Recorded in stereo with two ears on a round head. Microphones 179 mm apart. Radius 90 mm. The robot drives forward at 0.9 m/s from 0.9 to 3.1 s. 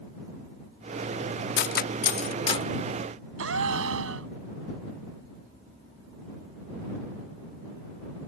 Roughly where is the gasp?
Right.